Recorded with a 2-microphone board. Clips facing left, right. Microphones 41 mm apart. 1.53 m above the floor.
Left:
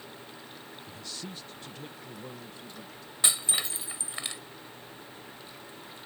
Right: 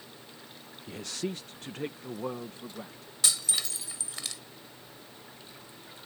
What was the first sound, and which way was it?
A man speaking, 65° right (ahead or behind).